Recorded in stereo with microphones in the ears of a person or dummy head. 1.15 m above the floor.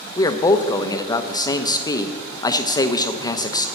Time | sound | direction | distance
0.2 | a man speaking | 20° left (ahead or behind) | 0.7 m